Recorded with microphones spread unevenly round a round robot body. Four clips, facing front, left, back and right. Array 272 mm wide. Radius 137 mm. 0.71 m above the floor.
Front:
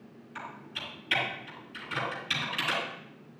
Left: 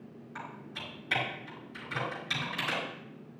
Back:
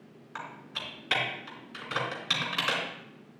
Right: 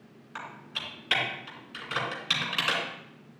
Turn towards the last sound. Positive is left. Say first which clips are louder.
# right 3 dB, back 1 dB
turn(degrees=-135)